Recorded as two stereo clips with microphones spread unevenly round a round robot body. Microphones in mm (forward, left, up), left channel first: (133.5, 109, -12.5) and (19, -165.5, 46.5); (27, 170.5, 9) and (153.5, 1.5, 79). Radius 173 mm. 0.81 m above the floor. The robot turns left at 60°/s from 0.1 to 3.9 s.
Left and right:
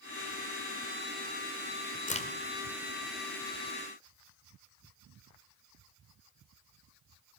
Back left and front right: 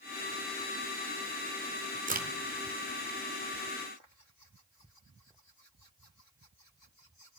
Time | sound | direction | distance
2.1 | a crack | 5° left | 1.6 m